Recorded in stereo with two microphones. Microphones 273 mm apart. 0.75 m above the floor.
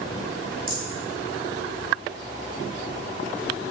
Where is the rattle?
20° right (ahead or behind), 0.7 m.